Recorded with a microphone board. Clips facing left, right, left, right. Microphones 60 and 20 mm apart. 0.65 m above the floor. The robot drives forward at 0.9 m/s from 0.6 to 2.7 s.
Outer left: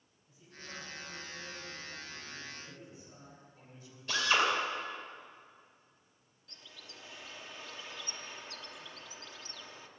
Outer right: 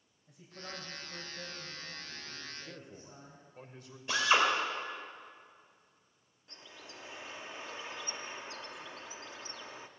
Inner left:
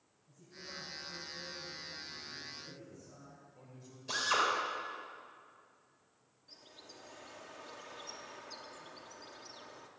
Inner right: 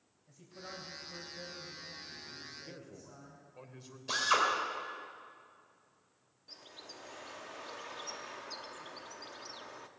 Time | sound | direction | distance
0.3 | a man speaking | 70° right (ahead or behind) | 3.5 m
2.6 | a man speaking | 70° right (ahead or behind) | 2 m
4.1 | a drill | 20° right (ahead or behind) | 3.5 m
6.5 | a bird | 25° right (ahead or behind) | 0.8 m